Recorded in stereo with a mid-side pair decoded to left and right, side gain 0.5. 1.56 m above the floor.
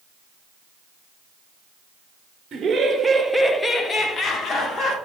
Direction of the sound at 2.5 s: 45° right.